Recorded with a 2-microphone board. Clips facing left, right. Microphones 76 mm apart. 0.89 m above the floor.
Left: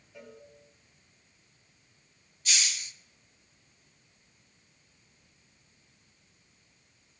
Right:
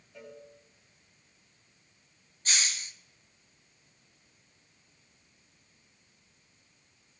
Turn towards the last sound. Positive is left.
turn(degrees=-40)  # may be behind; listen again after turning